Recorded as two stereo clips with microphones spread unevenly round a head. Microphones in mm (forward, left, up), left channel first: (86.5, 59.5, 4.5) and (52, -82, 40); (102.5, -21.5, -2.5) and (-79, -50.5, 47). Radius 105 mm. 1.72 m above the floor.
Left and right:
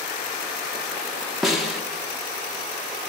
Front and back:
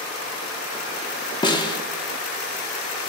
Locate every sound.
1.4 s a snare drum: 60° right, 1.3 m